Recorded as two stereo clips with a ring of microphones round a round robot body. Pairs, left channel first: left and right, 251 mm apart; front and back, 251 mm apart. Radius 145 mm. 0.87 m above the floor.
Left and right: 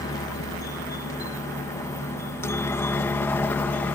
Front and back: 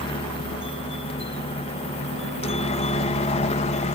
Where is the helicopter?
35° left; by 4.0 s 15° left.